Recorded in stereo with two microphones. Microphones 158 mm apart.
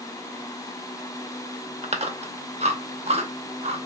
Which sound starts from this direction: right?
Chewing, at 1.8 s.